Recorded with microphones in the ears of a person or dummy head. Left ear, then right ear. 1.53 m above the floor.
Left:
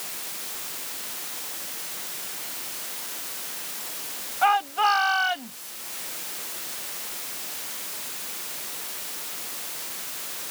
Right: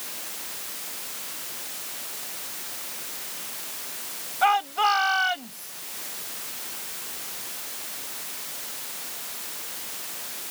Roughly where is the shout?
Centre.